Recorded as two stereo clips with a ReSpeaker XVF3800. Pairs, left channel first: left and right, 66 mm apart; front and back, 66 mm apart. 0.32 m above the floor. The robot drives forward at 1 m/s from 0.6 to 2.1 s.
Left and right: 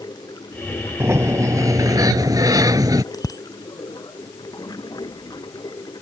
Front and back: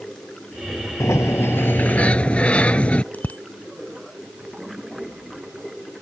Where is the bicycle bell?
65° left.